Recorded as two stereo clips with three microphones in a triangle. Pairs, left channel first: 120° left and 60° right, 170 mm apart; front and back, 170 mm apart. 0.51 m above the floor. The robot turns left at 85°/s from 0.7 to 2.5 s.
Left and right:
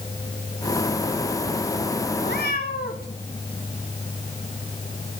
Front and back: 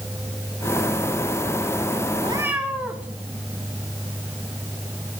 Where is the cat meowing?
120° left, 1.5 m; by 3.1 s 95° left, 1.5 m.